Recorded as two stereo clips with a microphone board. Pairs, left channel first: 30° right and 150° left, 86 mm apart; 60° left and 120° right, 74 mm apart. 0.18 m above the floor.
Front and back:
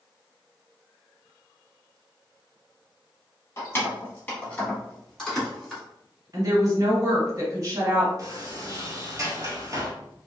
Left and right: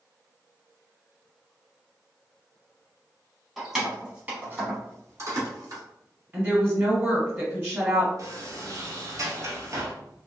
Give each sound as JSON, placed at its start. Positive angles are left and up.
{"t": 3.6, "sound": "keys jangling", "azimuth_deg": -30, "distance_m": 1.0}
{"t": 6.3, "sound": "a woman speaking", "azimuth_deg": -175, "distance_m": 1.3}
{"t": 8.2, "sound": "a sliding door", "azimuth_deg": -160, "distance_m": 0.8}